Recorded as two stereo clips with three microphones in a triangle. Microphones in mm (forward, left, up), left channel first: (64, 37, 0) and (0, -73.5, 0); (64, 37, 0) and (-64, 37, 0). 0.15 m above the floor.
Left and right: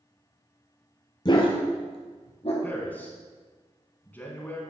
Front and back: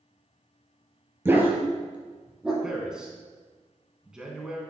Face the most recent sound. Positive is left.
turn(degrees=105)